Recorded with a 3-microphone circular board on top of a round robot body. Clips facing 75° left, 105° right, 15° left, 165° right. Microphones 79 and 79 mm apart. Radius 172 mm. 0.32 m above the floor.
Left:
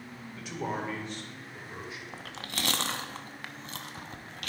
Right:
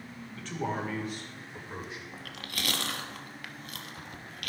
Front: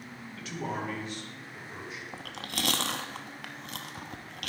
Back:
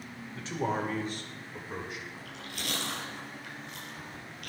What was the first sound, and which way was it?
A man speaking, 145° left.